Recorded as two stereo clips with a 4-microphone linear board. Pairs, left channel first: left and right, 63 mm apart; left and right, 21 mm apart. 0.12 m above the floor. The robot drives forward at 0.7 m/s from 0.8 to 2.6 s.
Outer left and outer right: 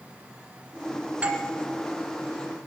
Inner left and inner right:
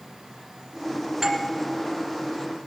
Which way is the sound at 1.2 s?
20° right (ahead or behind).